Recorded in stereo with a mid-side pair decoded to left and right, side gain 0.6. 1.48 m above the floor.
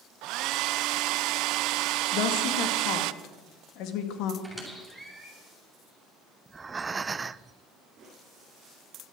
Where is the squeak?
Straight ahead, 7 m.